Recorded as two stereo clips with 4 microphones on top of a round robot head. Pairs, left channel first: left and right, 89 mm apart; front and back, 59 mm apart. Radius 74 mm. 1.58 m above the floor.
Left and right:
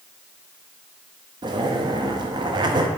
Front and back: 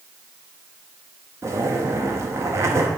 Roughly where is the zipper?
Behind right.